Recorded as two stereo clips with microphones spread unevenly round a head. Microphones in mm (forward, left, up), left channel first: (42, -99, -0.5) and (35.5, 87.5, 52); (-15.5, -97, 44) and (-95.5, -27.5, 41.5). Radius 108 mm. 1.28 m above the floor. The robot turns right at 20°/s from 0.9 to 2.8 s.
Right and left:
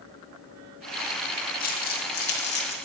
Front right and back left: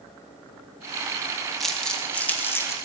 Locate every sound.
1.6 s crumpling: 130° right, 1.8 m; by 2.8 s 105° right, 1.8 m